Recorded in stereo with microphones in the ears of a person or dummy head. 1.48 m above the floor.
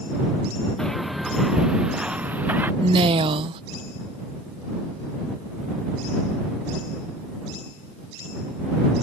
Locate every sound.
0.8 s footsteps: 5° left (ahead or behind); by 2.7 s 10° right (ahead or behind)
2.8 s a woman speaking: 35° right (ahead or behind)